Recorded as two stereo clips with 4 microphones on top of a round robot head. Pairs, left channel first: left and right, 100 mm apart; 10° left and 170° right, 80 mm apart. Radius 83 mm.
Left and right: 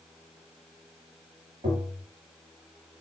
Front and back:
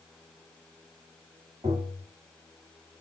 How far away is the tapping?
About 1.2 m.